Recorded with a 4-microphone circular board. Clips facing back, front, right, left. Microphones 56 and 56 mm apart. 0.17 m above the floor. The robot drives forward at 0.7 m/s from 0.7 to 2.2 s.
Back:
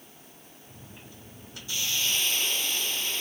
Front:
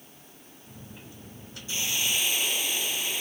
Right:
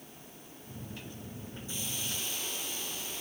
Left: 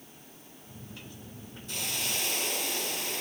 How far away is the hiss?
About 1.8 m.